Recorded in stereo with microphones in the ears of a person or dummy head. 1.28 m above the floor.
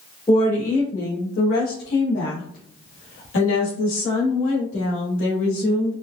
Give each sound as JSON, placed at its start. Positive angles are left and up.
{"t": 0.3, "sound": "a woman speaking", "side_deg": 20, "distance_m": 1.1}